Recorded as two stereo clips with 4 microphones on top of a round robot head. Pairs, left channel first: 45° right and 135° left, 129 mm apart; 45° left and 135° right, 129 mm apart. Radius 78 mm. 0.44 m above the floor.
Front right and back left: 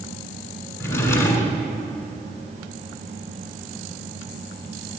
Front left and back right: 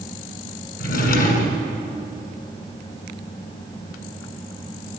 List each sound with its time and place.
0.8 s a drawer: 30° left, 1.6 m